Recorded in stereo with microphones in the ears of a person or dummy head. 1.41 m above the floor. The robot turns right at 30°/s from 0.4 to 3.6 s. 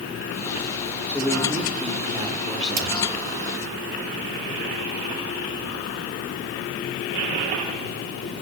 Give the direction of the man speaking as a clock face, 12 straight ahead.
6 o'clock.